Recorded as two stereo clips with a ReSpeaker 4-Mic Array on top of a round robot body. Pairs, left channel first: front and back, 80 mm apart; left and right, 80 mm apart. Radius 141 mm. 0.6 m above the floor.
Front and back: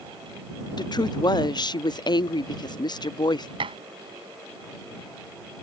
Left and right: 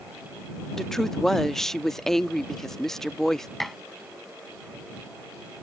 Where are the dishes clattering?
Straight behind.